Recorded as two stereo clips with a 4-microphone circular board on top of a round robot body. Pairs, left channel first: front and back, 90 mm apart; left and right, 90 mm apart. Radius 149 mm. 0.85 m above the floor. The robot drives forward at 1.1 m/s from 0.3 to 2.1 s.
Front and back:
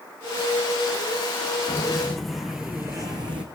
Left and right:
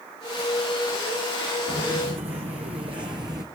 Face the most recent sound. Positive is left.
turn(degrees=-145)